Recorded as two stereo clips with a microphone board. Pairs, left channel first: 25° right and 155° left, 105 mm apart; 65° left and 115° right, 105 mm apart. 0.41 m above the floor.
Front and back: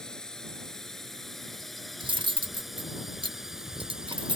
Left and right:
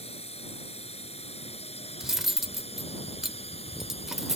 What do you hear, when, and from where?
0.0 s a drone: 60° left; by 4.4 s 75° left
2.0 s cutlery clinking: 165° left